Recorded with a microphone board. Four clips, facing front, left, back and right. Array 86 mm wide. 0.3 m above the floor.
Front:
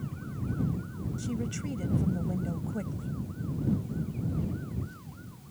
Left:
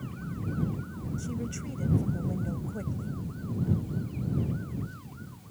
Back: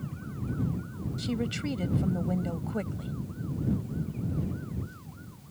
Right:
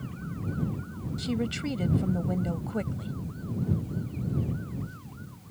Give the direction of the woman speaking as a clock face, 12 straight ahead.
4 o'clock.